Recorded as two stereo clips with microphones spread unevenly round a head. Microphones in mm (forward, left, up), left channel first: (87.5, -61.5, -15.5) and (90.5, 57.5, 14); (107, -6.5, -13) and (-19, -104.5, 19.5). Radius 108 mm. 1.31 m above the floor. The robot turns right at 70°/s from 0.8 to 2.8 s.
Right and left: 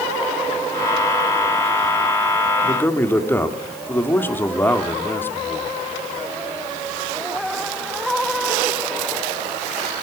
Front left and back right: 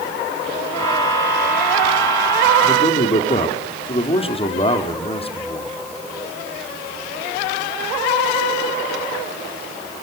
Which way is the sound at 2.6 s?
30° right.